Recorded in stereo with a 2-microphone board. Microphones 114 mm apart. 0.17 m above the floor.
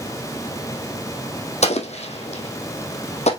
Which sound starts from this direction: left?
An explosion, at 1.6 s.